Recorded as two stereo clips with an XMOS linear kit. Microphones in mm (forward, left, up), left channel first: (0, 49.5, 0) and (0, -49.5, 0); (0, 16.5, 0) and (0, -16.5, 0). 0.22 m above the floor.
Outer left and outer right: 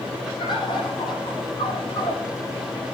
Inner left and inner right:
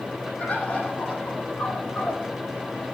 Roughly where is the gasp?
No gasp in this recording.